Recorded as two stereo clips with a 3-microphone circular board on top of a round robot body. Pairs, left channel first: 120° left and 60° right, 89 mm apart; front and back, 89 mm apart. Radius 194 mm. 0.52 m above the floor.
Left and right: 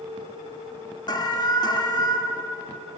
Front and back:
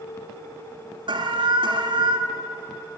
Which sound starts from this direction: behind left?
An alarm, at 1.1 s.